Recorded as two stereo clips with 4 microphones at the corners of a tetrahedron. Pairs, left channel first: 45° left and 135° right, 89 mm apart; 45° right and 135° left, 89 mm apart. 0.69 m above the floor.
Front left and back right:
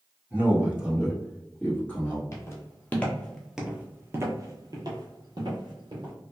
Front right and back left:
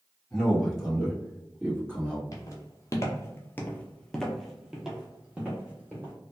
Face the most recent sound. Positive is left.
turn(degrees=-155)